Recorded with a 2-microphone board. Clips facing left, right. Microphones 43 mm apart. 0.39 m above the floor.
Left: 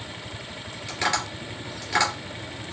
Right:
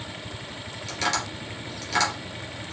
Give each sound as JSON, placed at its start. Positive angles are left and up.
{"t": 0.9, "sound": "tapping", "side_deg": 30, "distance_m": 3.0}